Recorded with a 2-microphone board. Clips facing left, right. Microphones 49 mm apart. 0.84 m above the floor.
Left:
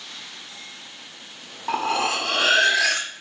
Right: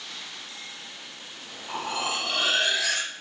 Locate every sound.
1.7 s cutlery clinking: 75° left (ahead or behind), 0.8 m